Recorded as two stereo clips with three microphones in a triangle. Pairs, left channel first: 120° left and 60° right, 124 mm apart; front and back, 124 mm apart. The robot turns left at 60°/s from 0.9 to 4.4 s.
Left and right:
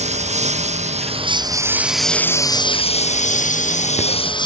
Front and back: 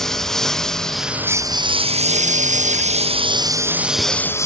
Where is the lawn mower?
85° right; by 4.5 s 65° left.